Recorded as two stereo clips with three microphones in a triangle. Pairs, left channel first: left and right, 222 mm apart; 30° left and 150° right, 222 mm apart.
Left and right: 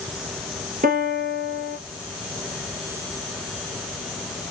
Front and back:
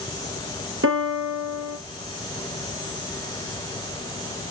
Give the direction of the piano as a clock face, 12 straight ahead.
5 o'clock.